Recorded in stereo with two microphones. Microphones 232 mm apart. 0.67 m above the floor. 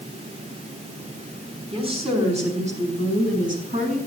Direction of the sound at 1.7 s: 25° right (ahead or behind).